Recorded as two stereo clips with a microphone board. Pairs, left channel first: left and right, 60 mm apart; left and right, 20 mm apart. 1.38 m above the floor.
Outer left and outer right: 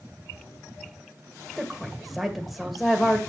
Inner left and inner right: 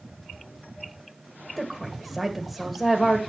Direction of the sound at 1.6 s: Centre (ahead or behind).